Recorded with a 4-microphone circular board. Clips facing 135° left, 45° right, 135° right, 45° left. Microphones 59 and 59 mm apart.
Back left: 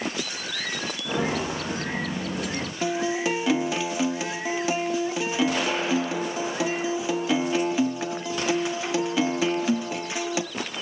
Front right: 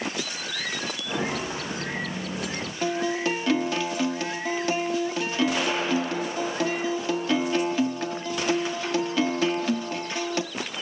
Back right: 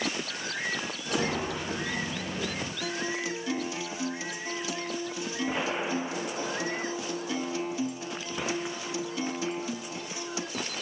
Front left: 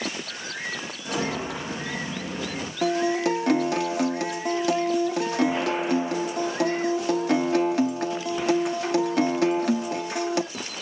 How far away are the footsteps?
About 5 m.